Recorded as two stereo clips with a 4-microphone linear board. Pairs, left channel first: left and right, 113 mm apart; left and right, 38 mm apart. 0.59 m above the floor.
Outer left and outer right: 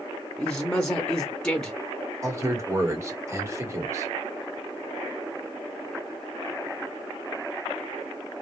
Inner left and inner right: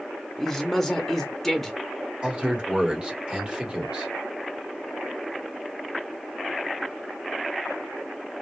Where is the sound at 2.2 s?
25° right (ahead or behind), 1.5 m.